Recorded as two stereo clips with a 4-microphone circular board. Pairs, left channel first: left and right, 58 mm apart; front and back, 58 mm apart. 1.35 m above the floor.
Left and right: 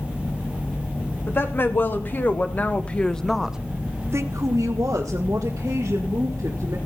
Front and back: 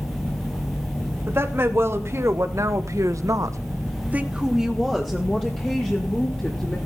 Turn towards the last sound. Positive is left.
turn(degrees=-70)